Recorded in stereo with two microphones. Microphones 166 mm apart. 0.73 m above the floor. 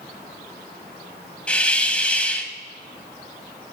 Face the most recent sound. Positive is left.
turn(degrees=5)  # may be behind; listen again after turning